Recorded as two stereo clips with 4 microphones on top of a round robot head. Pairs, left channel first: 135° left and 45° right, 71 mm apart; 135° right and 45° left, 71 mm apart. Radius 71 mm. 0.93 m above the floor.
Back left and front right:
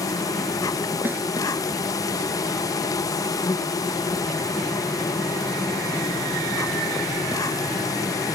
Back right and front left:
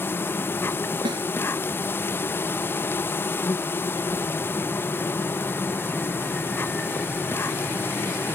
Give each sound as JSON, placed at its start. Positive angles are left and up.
{"t": 0.0, "sound": "an insect", "azimuth_deg": 165}
{"t": 1.1, "sound": "a snare drum", "azimuth_deg": 20}